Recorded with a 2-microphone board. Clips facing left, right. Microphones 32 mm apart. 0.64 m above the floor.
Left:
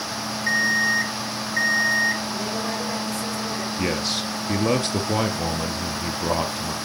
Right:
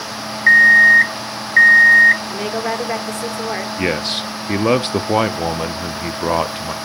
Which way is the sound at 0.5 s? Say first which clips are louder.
Right 13 dB; 45° right (ahead or behind).